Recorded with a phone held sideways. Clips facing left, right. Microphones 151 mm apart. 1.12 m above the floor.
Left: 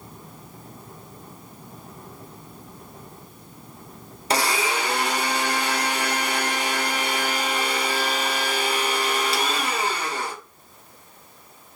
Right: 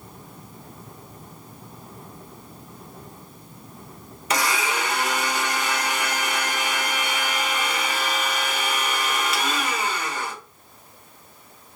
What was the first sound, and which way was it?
A blender, 35° left (ahead or behind).